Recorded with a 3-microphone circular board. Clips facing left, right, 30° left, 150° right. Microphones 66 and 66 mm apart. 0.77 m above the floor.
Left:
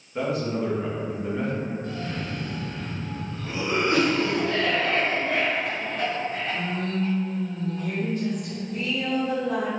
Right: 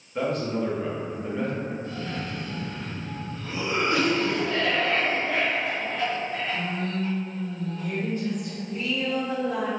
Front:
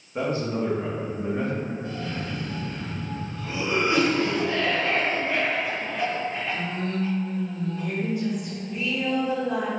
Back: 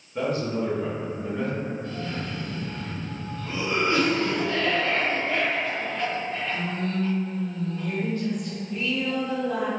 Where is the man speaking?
5° left, 0.9 m.